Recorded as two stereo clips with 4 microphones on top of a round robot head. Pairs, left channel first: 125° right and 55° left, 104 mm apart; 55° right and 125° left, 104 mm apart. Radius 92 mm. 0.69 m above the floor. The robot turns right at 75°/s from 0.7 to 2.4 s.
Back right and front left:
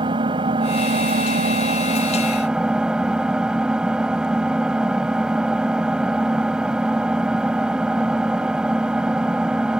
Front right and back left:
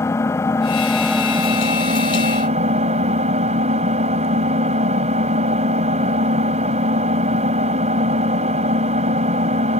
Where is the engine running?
10° left; by 9.8 s 135° left.